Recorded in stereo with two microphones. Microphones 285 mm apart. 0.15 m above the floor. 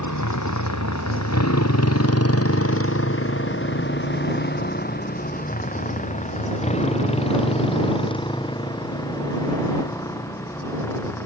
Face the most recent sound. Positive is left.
turn(degrees=10)  # may be behind; listen again after turning